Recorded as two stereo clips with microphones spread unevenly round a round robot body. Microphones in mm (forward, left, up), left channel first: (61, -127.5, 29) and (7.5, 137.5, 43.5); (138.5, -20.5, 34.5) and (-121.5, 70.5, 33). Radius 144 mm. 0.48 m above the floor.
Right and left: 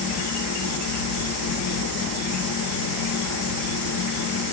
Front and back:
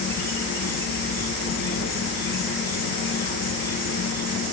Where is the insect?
75° right, 1.0 m.